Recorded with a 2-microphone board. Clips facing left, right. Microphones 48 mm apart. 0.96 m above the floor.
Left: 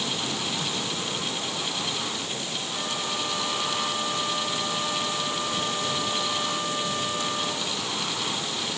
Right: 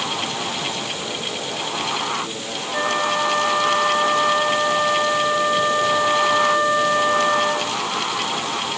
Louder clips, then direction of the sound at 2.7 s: Right 13 dB; 75° right (ahead or behind).